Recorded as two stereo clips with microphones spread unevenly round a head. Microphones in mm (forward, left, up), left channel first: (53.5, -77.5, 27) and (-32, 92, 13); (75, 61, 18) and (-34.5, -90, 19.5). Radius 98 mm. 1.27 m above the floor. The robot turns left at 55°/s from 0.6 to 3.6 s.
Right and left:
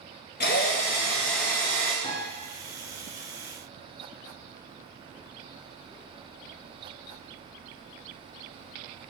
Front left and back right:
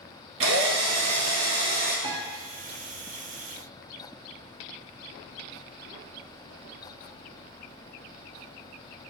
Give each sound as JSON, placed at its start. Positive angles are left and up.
{"t": 0.4, "sound": "a drill", "azimuth_deg": -110, "distance_m": 1.4}
{"t": 2.0, "sound": "a piano", "azimuth_deg": -130, "distance_m": 1.6}